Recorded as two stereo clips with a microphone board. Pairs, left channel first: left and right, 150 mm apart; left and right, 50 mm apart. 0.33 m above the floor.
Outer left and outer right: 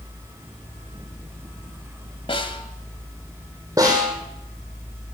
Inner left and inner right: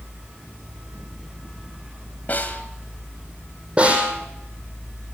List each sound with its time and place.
2.3 s a snare drum: 35° left (ahead or behind), 1.8 m
3.8 s a snare drum: 20° right (ahead or behind), 4.5 m